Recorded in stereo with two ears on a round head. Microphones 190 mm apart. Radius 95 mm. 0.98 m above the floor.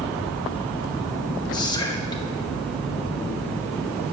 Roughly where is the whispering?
Centre.